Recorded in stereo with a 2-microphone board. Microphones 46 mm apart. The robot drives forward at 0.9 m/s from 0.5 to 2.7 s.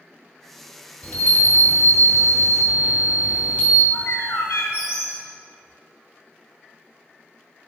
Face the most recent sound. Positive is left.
turn(degrees=80)